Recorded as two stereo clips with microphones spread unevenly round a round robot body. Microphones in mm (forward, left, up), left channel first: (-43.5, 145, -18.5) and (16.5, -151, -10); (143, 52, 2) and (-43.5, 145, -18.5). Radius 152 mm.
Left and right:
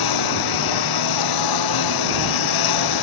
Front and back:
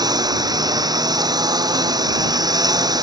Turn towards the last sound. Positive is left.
turn(degrees=80)